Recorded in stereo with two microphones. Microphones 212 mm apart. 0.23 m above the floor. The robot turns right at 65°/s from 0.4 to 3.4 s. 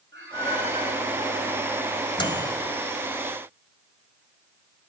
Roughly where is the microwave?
Left.